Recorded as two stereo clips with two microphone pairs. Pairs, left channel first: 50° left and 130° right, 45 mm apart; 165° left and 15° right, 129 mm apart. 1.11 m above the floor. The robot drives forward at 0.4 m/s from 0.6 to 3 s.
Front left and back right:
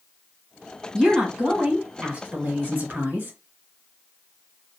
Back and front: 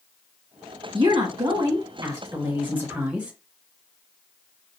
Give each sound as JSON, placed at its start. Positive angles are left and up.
{"t": 0.9, "sound": "a woman speaking", "azimuth_deg": -55, "distance_m": 1.5}